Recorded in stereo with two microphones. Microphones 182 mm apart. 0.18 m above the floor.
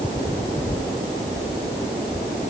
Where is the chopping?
No chopping in this recording.